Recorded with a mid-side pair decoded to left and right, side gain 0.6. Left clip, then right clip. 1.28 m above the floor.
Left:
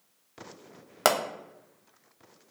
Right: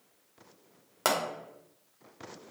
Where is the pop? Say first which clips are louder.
Left 4 dB; 35° left, 0.8 m.